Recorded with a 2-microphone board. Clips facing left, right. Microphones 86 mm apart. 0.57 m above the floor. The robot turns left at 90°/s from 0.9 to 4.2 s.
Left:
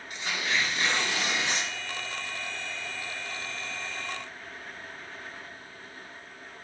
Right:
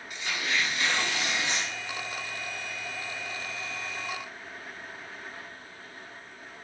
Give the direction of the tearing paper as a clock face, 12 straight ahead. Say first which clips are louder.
Left 1 dB; 8 o'clock.